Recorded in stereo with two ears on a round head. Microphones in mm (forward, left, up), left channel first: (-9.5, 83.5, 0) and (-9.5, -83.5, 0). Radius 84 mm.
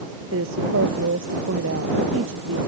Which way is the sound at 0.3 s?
85° right.